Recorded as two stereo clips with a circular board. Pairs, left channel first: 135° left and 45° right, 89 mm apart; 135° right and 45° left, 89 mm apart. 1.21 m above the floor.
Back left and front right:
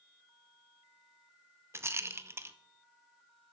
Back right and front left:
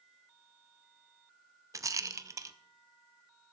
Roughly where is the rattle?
Ahead.